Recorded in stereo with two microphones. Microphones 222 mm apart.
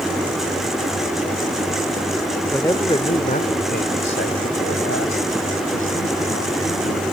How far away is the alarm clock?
I don't hear an alarm clock.